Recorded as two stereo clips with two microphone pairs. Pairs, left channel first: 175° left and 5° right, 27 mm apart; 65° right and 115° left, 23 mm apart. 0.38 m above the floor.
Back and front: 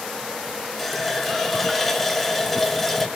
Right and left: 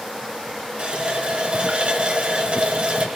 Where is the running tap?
90° left, 1.0 m.